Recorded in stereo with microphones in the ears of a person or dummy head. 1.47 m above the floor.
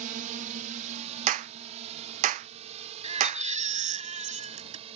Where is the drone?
40° right (ahead or behind); by 5.0 s 35° right (ahead or behind).